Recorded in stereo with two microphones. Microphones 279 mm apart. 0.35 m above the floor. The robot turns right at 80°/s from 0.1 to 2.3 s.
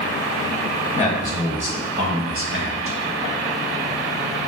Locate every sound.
0.9 s a man speaking: 140° left, 1.7 m; by 3.0 s 110° right, 1.7 m